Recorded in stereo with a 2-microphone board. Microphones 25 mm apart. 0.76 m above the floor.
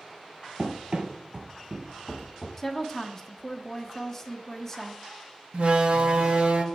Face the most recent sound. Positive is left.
turn(degrees=-55)  # may be behind; listen again after turning